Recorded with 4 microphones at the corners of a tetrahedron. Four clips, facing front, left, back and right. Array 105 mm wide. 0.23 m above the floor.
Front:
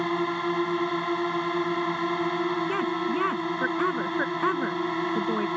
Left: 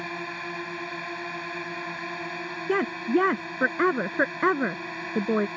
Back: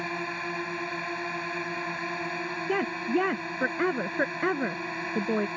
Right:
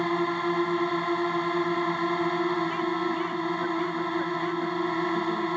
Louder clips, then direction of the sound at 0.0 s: Right 8 dB, front 7 dB; 50° right.